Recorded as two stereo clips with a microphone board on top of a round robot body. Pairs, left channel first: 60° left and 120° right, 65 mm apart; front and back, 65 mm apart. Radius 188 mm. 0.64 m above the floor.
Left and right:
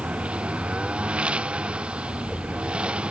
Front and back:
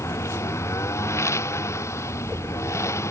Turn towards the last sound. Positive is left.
turn(degrees=-45)